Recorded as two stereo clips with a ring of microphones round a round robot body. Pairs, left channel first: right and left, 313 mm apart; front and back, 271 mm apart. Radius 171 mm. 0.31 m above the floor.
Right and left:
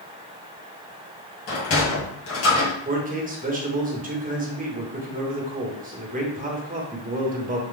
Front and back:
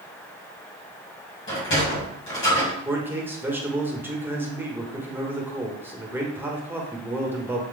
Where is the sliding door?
45° right, 2 m.